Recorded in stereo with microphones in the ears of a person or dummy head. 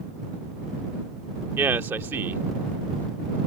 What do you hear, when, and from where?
1.6 s a man speaking: 15° right (ahead or behind)